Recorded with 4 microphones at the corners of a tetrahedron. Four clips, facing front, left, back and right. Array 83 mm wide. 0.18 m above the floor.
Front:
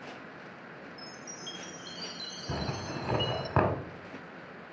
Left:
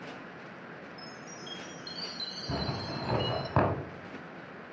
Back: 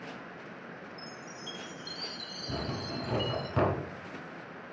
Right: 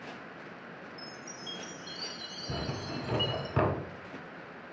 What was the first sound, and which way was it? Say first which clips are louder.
A chime: even, back 1 dB; 25° left.